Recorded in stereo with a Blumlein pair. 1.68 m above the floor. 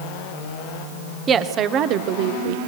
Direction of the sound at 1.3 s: 20° right.